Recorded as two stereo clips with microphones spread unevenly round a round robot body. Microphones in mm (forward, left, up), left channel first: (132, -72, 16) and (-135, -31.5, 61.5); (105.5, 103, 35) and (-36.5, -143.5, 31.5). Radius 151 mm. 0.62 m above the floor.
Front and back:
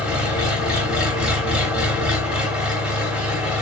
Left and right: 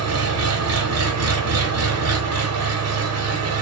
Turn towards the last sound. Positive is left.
turn(degrees=-95)